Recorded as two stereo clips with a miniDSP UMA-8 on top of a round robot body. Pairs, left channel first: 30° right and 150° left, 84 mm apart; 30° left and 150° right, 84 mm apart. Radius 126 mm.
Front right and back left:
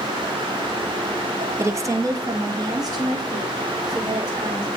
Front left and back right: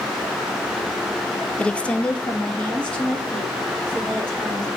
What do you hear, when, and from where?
1.6 s a woman speaking: 100° left, 0.5 m; by 4.7 s 110° left, 3 m